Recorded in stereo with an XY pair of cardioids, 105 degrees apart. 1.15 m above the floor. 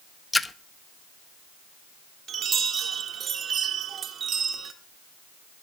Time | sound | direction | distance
0.3 | a splash | 15° left | 0.7 m
2.3 | a chime | 55° right | 1.5 m